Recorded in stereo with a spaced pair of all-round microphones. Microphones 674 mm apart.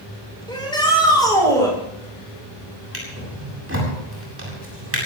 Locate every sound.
0.5 s a shout: 5° left (ahead or behind), 9 m
2.9 s a drawer: 20° right (ahead or behind), 8 m